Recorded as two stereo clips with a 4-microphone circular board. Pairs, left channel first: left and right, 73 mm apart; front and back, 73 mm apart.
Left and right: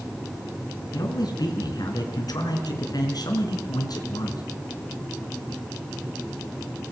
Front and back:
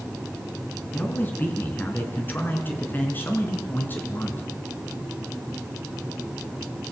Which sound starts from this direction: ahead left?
A man speaking, at 0.9 s.